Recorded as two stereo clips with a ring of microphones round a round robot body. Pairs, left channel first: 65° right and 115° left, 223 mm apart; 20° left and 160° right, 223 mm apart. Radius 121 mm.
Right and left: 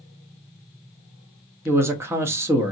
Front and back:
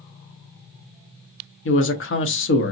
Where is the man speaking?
35° left, 1.0 m.